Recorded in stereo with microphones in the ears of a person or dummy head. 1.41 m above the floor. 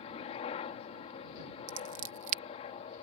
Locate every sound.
0.0 s a helicopter: 40° left (ahead or behind)
1.7 s scissors: 45° right (ahead or behind)